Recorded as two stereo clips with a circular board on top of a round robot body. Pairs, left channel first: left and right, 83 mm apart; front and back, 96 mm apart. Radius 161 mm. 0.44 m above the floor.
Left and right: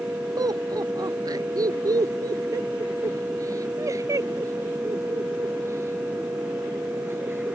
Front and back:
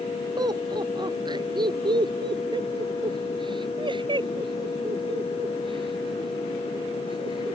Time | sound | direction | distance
0.4 | laughter | 135° right | ?